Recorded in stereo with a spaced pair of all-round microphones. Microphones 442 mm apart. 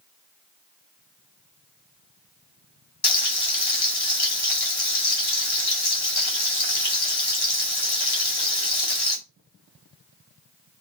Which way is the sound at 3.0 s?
60° left (ahead or behind).